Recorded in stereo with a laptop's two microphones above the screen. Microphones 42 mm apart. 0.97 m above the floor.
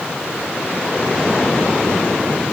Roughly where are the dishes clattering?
No dishes clattering in this recording.